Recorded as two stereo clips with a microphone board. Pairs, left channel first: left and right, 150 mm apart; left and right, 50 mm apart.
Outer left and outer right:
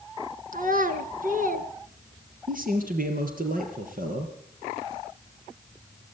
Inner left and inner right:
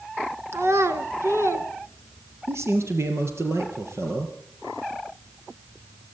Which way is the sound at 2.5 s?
70° right (ahead or behind).